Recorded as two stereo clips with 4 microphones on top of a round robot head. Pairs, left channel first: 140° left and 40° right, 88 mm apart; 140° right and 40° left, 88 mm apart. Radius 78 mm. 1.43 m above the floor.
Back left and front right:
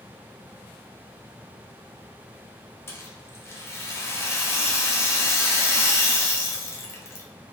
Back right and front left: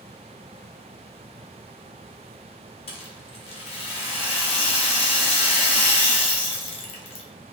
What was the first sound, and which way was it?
A rattle, 155° right.